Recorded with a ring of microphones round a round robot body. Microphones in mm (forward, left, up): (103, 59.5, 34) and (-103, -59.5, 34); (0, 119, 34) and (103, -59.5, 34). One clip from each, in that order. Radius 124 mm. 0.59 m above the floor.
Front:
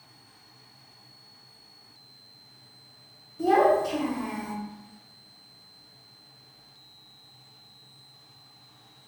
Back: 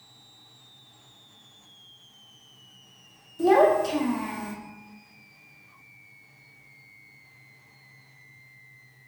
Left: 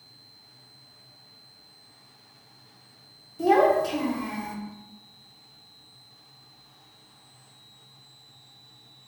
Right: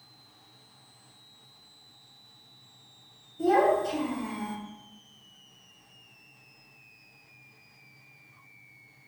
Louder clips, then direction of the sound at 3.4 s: Back 2 dB, left 3 dB; 160° left.